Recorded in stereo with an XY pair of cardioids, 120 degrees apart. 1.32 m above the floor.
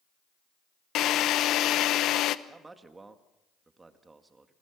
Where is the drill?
70° left, 0.9 m.